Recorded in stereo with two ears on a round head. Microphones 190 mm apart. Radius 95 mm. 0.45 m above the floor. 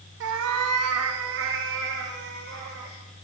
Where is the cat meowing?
55° right (ahead or behind), 0.8 m; by 3.0 s 50° right (ahead or behind), 2.5 m.